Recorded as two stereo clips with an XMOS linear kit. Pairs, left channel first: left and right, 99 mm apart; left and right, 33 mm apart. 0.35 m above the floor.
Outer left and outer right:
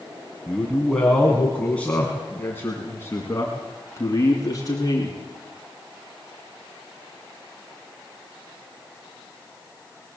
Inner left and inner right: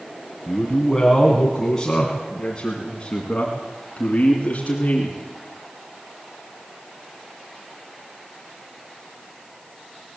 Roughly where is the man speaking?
Centre.